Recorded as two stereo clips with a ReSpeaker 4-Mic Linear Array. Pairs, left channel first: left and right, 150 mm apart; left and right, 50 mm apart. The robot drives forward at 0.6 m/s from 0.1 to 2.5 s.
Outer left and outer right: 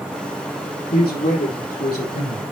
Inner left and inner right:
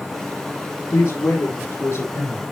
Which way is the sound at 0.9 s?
80° left.